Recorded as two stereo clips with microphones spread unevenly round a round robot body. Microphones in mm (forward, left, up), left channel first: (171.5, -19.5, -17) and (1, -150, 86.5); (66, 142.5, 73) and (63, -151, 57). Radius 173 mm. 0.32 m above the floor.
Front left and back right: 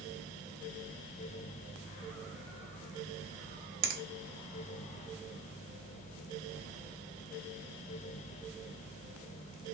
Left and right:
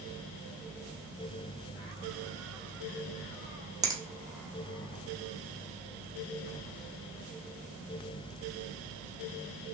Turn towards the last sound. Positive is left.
turn(degrees=-145)